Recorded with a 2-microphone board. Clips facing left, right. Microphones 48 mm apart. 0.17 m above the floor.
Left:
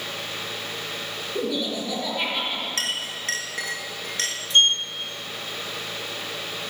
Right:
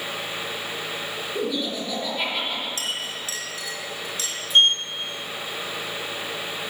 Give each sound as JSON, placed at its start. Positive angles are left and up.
{"t": 1.4, "sound": "laughter", "side_deg": 0, "distance_m": 4.0}
{"t": 2.8, "sound": "a clink", "side_deg": 60, "distance_m": 1.9}
{"t": 4.5, "sound": "a sliding door", "side_deg": -10, "distance_m": 0.9}